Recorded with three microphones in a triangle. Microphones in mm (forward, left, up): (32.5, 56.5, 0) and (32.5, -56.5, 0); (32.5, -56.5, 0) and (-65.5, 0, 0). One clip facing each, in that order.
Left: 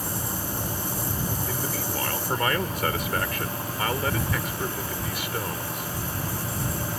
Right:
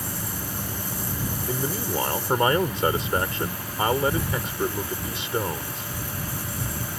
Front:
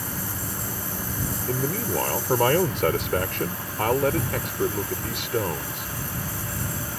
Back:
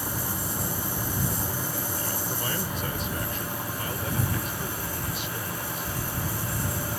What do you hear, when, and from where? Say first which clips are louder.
1.5 s a man speaking: right 3 dB, front 6 dB; 25° right